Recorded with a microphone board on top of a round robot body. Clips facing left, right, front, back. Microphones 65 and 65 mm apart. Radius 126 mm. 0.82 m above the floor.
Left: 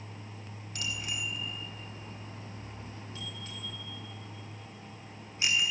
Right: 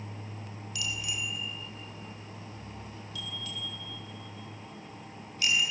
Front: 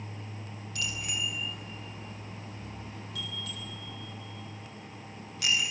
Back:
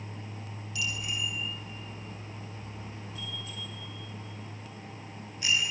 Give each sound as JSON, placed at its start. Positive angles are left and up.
{"t": 0.8, "sound": "a bicycle bell", "azimuth_deg": 45, "distance_m": 4.0}